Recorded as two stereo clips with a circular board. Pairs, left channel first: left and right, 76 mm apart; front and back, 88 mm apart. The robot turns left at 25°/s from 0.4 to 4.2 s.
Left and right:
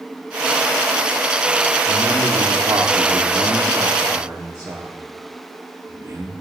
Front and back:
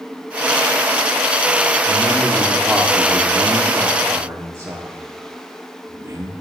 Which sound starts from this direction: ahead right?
A man speaking, at 1.9 s.